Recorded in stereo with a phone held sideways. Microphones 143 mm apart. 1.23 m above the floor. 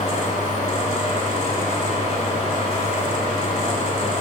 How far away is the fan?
About 2 m.